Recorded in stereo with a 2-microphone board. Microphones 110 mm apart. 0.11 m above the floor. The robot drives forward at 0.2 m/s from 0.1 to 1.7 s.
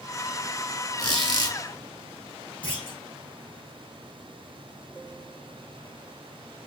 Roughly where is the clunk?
Left.